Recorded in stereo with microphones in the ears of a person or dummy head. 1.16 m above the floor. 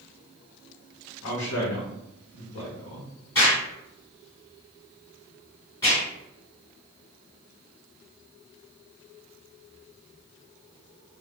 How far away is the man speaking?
About 0.9 m.